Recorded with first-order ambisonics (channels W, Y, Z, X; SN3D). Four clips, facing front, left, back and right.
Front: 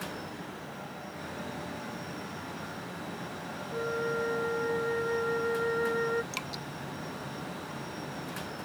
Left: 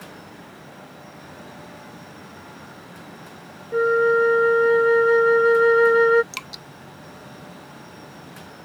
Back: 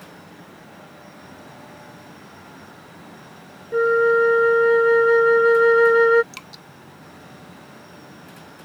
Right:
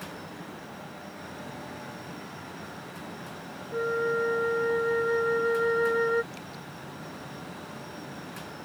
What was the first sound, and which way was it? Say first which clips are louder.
A flute: left 10 dB, back 16 dB; 145° left.